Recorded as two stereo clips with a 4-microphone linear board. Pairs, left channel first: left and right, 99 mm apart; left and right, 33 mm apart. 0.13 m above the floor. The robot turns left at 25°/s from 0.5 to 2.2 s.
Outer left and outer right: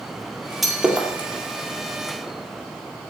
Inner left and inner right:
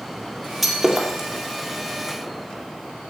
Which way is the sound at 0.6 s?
Centre (ahead or behind).